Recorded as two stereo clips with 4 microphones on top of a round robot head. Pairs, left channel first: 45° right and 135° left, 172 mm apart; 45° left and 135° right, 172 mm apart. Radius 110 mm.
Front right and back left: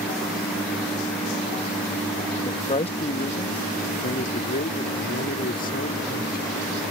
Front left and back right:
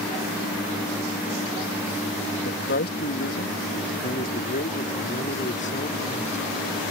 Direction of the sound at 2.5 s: 20° left.